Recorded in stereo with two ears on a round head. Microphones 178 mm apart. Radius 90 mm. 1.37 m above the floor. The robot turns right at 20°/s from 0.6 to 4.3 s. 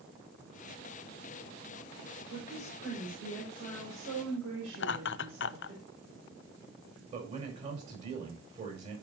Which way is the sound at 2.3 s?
140° right.